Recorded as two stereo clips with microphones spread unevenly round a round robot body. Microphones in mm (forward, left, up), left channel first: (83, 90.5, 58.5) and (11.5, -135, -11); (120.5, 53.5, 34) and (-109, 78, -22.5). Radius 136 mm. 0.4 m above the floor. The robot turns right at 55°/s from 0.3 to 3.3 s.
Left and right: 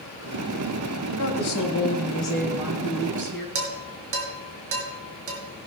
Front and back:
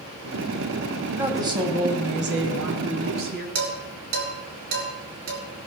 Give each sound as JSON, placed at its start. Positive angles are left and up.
{"t": 1.2, "sound": "a woman speaking", "azimuth_deg": 95, "distance_m": 2.5}
{"t": 3.5, "sound": "dishes clattering", "azimuth_deg": -140, "distance_m": 3.0}